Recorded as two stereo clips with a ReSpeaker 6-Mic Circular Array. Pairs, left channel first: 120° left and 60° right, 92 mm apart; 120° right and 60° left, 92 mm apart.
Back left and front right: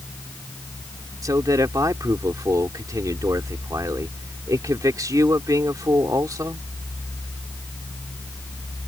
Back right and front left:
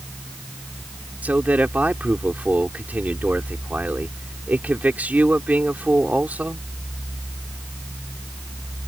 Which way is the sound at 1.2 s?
10° right.